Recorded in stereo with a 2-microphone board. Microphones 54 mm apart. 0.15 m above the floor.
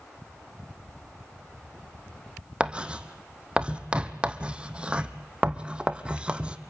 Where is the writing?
20° right (ahead or behind), 1.1 m.